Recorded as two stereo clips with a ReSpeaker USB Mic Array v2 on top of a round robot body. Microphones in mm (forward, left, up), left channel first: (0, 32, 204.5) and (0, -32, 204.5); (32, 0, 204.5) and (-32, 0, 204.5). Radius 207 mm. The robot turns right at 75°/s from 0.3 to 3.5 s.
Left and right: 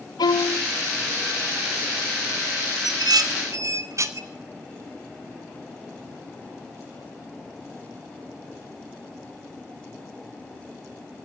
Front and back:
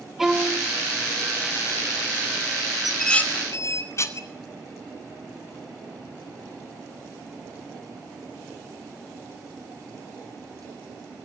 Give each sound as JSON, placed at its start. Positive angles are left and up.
{"t": 0.2, "sound": "a violin", "azimuth_deg": 95, "distance_m": 0.9}
{"t": 2.8, "sound": "dishes clattering", "azimuth_deg": -100, "distance_m": 1.0}